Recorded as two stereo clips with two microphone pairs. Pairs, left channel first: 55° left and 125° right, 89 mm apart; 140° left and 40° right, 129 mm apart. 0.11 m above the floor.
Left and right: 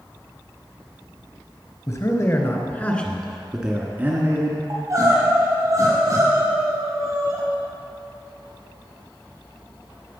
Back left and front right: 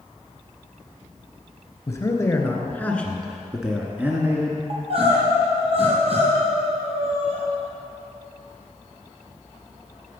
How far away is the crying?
About 3.5 m.